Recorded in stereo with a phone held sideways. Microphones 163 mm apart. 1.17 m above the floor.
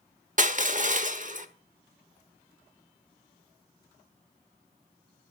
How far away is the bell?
I don't hear a bell.